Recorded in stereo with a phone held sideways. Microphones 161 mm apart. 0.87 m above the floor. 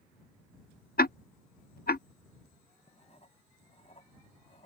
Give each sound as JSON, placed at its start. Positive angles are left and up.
{"t": 1.0, "sound": "ticking", "side_deg": 70}
{"t": 2.9, "sound": "writing", "side_deg": 40}